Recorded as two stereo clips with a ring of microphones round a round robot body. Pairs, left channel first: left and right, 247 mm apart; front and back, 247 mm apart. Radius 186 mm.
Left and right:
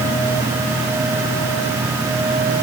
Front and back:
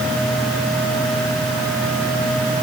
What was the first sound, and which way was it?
Only background noise.